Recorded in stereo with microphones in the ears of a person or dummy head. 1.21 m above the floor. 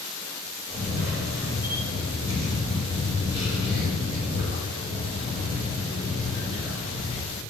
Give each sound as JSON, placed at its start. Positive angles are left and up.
{"t": 0.7, "sound": "a camera shutter", "side_deg": -25, "distance_m": 4.0}